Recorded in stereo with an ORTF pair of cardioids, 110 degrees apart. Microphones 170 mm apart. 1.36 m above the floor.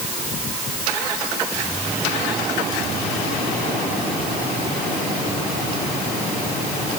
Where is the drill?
I don't hear a drill.